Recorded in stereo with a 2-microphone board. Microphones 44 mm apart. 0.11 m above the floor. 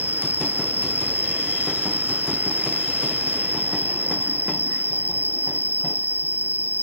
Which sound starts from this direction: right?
An insect, at 0.0 s.